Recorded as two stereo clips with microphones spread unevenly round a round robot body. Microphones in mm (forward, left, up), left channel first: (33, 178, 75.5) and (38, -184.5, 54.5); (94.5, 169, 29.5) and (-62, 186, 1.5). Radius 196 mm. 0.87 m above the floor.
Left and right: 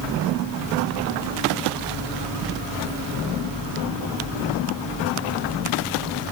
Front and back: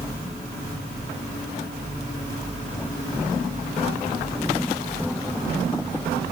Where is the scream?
I don't hear a scream.